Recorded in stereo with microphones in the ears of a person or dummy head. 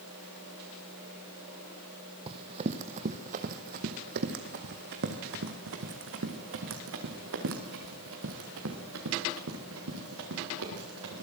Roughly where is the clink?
No clink in this recording.